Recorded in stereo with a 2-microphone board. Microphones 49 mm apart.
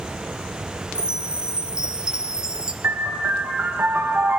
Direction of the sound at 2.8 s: 60° right (ahead or behind).